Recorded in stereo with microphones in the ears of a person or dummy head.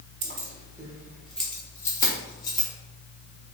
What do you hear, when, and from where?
0.2 s keys jangling: 50° right (ahead or behind), 1.0 m; by 2.7 s 25° left (ahead or behind), 2 m